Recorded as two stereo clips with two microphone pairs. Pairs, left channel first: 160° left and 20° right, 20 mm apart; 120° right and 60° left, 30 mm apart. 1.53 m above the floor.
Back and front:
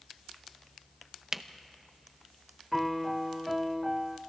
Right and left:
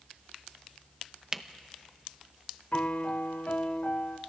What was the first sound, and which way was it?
A camera shutter, 10° left.